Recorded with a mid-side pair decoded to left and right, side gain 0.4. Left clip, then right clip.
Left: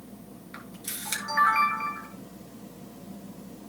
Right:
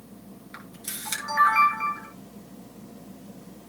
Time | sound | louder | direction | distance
0.5 | a camera shutter | right 1 dB | 10° right | 7 m